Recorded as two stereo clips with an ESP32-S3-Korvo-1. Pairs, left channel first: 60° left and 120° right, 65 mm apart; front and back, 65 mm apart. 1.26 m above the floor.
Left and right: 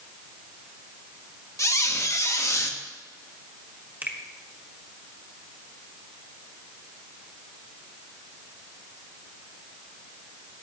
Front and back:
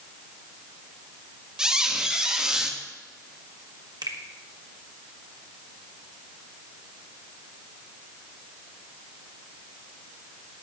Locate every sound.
1.6 s a squeak: 100° left, 1.3 m
4.0 s a finger snap: 175° left, 1.5 m